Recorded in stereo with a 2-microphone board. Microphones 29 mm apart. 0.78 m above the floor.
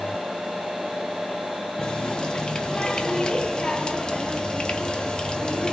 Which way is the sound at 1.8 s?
25° left (ahead or behind).